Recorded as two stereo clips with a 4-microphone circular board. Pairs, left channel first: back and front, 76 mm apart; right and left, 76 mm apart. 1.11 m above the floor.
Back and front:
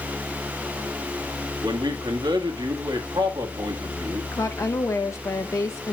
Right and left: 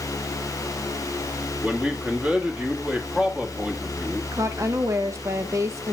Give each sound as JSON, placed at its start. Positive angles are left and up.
{"t": 1.6, "sound": "a man speaking", "azimuth_deg": 10, "distance_m": 1.9}
{"t": 4.3, "sound": "a woman speaking", "azimuth_deg": 135, "distance_m": 1.0}